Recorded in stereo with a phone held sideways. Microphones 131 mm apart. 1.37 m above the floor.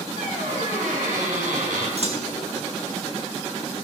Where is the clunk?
55° right (ahead or behind), 1.1 m.